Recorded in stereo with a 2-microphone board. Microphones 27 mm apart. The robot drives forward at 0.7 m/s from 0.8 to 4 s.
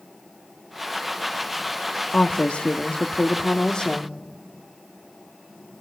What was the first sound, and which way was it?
A woman speaking, 50° left (ahead or behind).